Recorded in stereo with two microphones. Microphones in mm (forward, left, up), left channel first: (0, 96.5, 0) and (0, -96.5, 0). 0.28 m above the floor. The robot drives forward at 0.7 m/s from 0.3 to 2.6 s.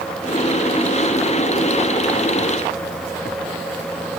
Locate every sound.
Only background noise.